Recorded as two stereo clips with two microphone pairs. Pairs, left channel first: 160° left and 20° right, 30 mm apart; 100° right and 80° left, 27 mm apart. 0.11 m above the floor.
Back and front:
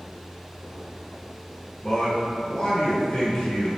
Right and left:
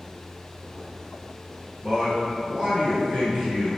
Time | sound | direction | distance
1.8 | a man speaking | 115° left | 1.2 m